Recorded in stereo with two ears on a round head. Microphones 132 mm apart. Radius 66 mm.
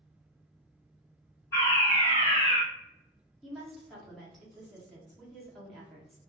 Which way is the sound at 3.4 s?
Centre (ahead or behind).